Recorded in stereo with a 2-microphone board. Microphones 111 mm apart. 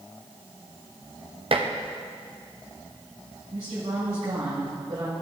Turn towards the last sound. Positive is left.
turn(degrees=-80)